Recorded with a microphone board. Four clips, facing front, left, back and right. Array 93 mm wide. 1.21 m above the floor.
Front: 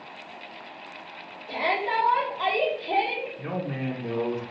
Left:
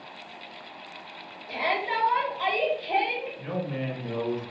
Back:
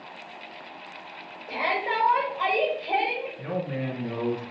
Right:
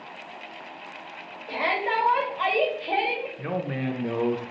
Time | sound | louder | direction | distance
1.5 | a shout | right 2 dB, front 1 dB | 120° right | 1.9 m
3.4 | a man speaking | right 2 dB, back 1 dB | 75° right | 0.8 m